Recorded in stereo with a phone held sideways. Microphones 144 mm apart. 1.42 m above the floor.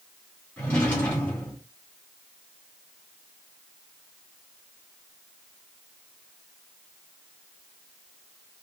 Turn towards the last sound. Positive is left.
turn(degrees=10)  # may be behind; listen again after turning